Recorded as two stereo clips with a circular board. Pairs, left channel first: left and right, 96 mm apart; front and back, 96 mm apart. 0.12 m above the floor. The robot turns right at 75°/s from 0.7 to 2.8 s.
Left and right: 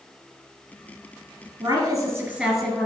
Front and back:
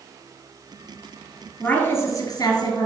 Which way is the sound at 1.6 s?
60° right.